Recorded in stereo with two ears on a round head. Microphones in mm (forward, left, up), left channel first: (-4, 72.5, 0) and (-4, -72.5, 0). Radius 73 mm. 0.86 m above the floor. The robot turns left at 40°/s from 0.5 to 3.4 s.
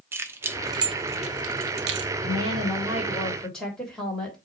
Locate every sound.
0.1 s keys jangling: 15° right (ahead or behind), 0.8 m; by 2.1 s 80° right, 0.8 m
2.2 s a woman speaking: 135° right, 3 m; by 4.4 s 175° left, 3 m